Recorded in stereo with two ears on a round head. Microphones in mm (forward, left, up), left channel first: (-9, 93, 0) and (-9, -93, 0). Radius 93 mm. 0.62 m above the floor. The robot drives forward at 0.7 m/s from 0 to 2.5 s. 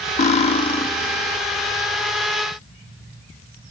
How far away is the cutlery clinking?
About 0.7 m.